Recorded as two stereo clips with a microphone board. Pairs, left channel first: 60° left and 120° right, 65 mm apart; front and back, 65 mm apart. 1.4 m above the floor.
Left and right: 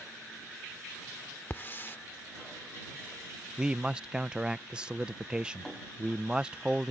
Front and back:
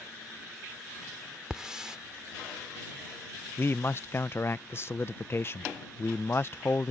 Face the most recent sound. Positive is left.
turn(degrees=-45)